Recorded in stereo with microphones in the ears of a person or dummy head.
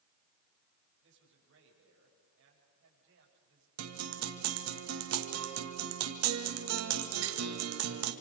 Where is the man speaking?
70° right (ahead or behind), 7.5 m.